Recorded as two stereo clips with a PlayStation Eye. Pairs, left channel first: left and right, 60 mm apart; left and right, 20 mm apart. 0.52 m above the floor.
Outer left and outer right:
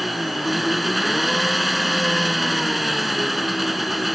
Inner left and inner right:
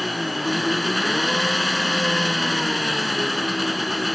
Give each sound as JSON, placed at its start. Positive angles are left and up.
{"t": 0.0, "sound": "an engine running", "side_deg": 0}